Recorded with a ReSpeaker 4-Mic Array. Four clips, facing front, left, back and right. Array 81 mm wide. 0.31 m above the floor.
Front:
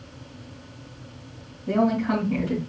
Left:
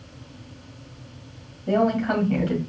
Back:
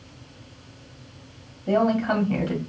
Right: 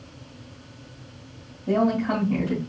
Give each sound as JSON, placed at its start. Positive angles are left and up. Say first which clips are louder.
{"t": 1.7, "sound": "a woman speaking", "louder": "left 1 dB, back 1 dB", "azimuth_deg": 140, "distance_m": 2.0}